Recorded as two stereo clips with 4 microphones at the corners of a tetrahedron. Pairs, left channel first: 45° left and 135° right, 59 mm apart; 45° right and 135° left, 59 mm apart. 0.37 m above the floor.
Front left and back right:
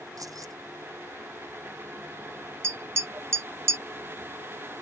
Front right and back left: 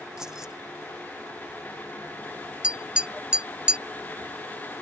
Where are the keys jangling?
145° right.